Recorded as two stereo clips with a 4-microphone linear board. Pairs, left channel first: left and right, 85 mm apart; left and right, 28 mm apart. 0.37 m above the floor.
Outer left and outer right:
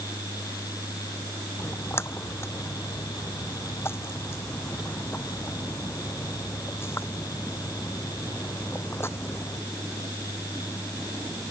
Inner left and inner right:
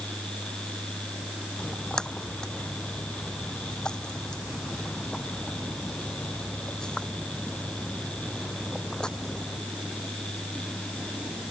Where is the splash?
25° left (ahead or behind).